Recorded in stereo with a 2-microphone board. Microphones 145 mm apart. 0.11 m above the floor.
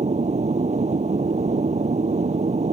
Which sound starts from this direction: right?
An aircraft, at 0.0 s.